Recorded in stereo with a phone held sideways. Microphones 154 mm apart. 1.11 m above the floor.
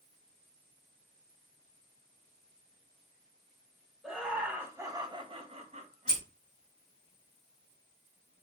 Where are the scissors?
25° left (ahead or behind), 2 m.